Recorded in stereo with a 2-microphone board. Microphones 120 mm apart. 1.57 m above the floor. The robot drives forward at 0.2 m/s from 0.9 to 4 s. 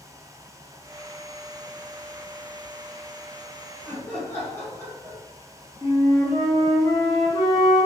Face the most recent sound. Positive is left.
turn(degrees=35)  # may be behind; listen again after turning